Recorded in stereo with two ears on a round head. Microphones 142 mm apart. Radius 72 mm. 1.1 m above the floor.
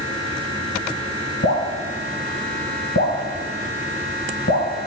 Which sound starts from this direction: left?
Dripping, at 1.4 s.